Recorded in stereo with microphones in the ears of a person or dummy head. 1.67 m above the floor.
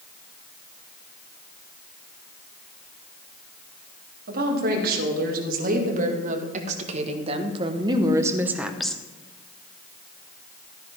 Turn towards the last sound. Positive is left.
turn(degrees=10)  # may be behind; listen again after turning